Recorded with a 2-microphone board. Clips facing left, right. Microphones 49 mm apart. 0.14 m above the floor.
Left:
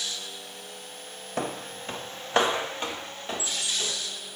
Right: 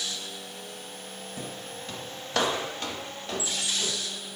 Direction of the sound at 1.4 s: 70° left (ahead or behind).